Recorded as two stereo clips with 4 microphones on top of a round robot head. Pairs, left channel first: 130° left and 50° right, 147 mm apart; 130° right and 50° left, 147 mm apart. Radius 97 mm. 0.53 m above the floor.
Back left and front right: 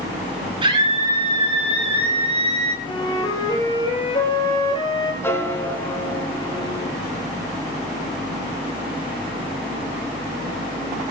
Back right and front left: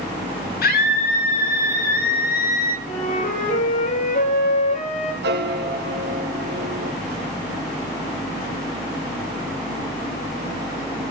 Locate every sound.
0.6 s a scream: 110° right, 6.5 m; by 2.8 s 100° right, 3 m
2.9 s a flute: 165° right, 10 m
5.2 s a piano: 55° left, 2.5 m